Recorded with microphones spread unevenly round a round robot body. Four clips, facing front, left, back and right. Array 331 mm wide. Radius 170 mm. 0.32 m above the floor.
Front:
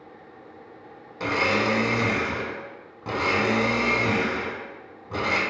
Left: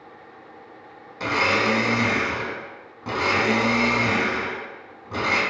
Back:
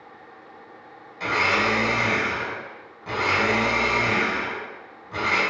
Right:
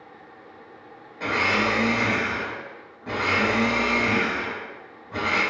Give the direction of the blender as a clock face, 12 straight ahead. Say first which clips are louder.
Left 2 dB, back 1 dB; 10 o'clock.